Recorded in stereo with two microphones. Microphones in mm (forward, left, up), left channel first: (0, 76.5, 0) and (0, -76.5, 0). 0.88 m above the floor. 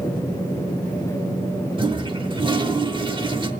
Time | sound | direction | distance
1.8 | a toilet flushing | 35° right (ahead or behind) | 0.9 m